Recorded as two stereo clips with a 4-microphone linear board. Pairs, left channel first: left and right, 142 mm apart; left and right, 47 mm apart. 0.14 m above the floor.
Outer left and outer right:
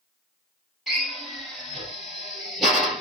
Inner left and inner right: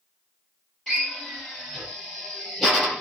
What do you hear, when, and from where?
0.9 s a drill: centre (ahead or behind), 2.5 m